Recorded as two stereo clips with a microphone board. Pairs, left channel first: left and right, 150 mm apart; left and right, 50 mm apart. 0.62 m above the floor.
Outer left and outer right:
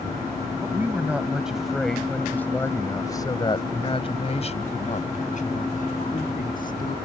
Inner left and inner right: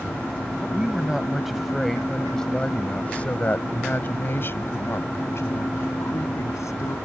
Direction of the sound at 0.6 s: 15° right (ahead or behind).